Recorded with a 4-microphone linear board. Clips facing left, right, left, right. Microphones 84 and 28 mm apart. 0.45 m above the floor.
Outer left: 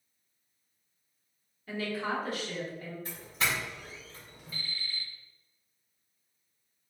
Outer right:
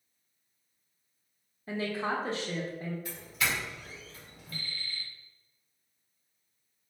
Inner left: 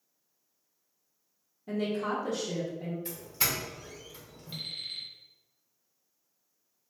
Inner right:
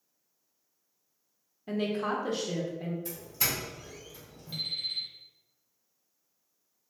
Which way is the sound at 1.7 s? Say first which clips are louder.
Outer right 1 dB, inner right 1 dB; 30° right (ahead or behind).